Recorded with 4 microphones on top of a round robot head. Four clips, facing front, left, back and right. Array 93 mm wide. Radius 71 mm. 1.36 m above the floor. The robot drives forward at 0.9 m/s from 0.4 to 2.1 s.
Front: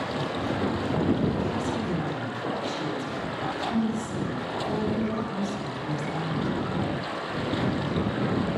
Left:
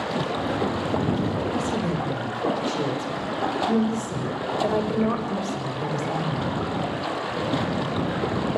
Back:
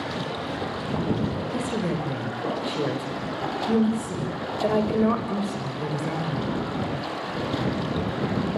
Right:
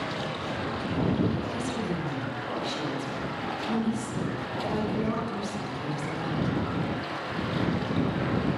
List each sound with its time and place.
0.0 s running water: 85° left, 6 m; by 8.6 s 100° left, 6 m
1.5 s a woman speaking: 145° left, 7 m; by 6.5 s 150° left, 7.5 m